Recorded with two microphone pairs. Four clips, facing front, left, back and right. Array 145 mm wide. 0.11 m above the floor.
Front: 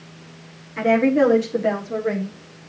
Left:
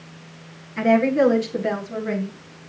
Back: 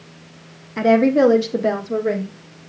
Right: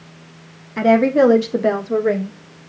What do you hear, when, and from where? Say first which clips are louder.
0.8 s a woman speaking: right 4 dB, back 3 dB; 120° right, 3.5 m; by 2.3 s 90° right, 4 m